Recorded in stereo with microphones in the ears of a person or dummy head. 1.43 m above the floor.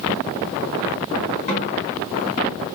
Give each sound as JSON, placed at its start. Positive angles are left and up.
{"t": 1.5, "sound": "a snare drum", "side_deg": 35, "distance_m": 3.0}